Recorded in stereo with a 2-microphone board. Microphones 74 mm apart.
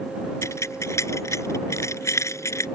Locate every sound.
0.4 s keys jangling: 40° left (ahead or behind)